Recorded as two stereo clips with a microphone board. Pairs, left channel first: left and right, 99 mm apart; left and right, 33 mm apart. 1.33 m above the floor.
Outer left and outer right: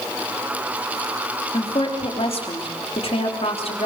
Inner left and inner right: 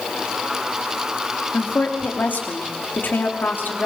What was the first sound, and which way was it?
A woman speaking, 75° left (ahead or behind).